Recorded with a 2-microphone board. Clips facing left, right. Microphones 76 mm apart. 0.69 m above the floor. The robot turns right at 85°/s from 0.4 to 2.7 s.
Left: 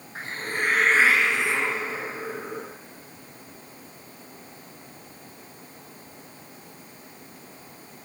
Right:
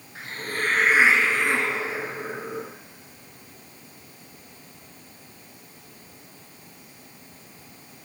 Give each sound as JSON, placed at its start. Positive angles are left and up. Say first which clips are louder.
{"t": 0.1, "sound": "a hiss", "louder": "left 1 dB", "azimuth_deg": 145, "distance_m": 1.6}